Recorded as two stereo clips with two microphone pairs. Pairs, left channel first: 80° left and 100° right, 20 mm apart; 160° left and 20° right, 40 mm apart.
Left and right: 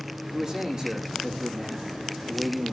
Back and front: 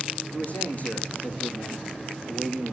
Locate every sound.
0.3 s a man speaking: 155° right, 6.5 m